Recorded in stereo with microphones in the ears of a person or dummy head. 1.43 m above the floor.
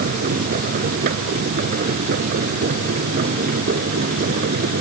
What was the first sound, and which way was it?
A machine running, 45° right (ahead or behind).